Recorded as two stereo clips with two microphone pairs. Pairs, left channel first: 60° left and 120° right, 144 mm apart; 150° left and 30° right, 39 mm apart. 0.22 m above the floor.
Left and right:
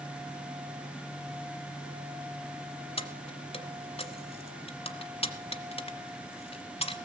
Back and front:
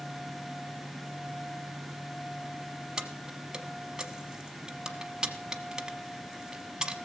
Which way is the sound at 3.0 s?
35° left.